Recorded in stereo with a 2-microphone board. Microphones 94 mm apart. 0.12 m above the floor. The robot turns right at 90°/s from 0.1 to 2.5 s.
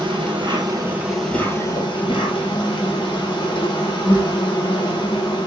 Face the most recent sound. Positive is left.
turn(degrees=120)